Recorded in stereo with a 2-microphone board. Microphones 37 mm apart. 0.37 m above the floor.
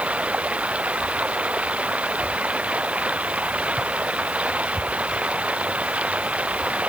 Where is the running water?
35° right (ahead or behind).